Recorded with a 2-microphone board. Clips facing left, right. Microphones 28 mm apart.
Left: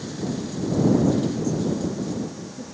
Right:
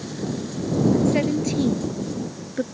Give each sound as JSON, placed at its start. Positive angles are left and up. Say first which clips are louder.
{"t": 1.1, "sound": "a woman speaking", "louder": "right 2 dB", "side_deg": -70}